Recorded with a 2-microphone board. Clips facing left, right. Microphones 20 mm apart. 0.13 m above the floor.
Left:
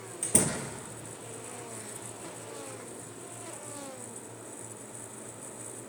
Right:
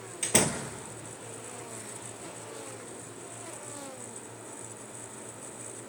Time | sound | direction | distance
0.2 | a door slam | 50° right (ahead or behind) | 2 m